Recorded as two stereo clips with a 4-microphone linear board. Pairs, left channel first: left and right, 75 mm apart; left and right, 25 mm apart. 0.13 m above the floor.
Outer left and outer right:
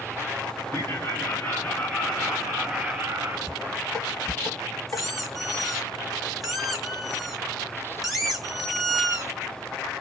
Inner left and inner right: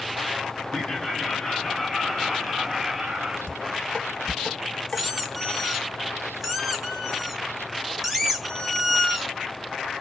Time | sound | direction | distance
0.7 | laughter | 35° left (ahead or behind) | 1.6 m
3.5 | dishes clattering | 50° left (ahead or behind) | 1.7 m
4.9 | a squeak | centre (ahead or behind) | 1.0 m